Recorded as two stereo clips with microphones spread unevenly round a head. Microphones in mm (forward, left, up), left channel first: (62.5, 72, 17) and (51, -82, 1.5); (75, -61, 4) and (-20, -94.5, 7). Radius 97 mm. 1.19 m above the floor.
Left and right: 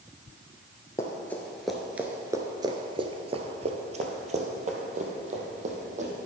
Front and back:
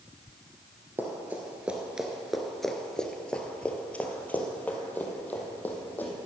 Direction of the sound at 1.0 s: 140° left.